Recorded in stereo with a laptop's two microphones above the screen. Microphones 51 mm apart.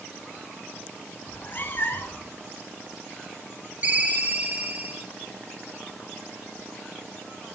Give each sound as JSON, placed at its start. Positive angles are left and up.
{"t": 1.3, "sound": "a cat meowing", "side_deg": 40, "distance_m": 1.0}
{"t": 3.8, "sound": "a ringtone", "side_deg": -30, "distance_m": 0.8}